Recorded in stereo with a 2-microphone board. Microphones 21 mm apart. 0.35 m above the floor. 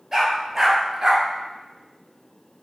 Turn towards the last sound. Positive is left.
turn(degrees=-20)  # may be behind; listen again after turning